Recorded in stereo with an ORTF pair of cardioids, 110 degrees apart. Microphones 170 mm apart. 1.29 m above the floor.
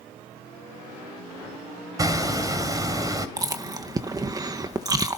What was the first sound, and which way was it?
Hammering, 20° right.